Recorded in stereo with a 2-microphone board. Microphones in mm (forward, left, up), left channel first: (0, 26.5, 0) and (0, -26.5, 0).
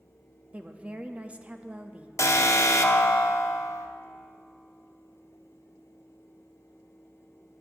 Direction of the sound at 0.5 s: 25° right (ahead or behind).